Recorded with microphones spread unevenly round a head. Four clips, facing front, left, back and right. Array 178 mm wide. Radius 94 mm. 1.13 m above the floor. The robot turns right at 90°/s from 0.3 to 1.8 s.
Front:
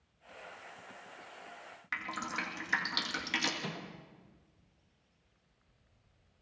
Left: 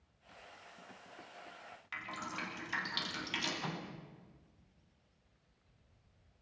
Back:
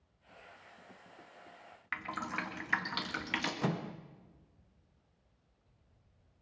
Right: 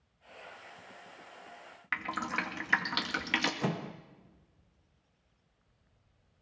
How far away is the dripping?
About 2 m.